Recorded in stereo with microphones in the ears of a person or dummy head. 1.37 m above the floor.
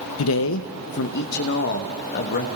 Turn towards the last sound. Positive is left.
turn(degrees=45)  # may be behind; listen again after turning